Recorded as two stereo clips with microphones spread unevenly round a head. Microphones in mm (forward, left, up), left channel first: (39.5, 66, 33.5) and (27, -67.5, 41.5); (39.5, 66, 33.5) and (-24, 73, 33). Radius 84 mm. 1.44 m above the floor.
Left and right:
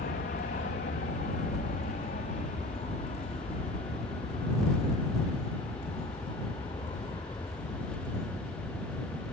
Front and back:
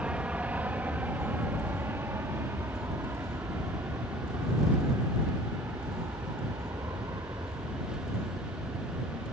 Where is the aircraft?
105° left; by 9.3 s 150° left.